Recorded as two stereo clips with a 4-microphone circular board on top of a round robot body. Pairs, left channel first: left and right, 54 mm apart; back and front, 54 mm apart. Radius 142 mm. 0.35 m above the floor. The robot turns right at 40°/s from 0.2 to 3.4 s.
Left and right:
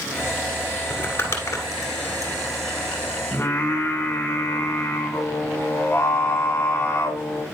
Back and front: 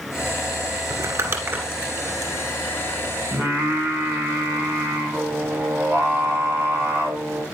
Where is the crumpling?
25° left, 1.6 m; by 2.3 s 85° left, 1.6 m.